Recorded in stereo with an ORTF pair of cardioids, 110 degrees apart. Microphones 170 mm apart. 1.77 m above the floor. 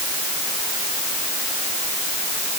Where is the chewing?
I don't hear chewing.